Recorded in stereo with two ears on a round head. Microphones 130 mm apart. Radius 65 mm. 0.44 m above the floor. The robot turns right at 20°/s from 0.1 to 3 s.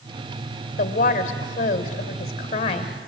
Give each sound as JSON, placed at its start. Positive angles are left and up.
{"t": 0.8, "sound": "a woman speaking", "azimuth_deg": 90, "distance_m": 2.5}